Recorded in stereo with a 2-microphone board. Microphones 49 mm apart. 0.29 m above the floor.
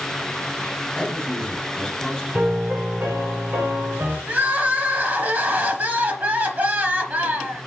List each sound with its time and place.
0.9 s a man speaking: 5° left (ahead or behind), 1.9 m
2.3 s a piano: 55° right (ahead or behind), 2.5 m
4.3 s crying: 40° right (ahead or behind), 1.1 m